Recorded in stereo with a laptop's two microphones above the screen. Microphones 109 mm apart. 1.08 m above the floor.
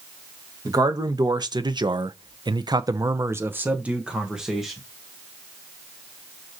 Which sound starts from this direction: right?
A man speaking, at 0.7 s.